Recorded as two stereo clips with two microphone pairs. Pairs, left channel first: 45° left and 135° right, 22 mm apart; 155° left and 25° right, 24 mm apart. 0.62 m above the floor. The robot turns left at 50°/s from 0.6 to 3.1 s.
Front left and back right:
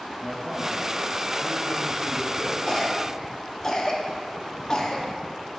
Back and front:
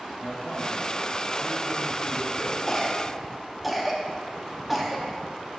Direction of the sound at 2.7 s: 75° left.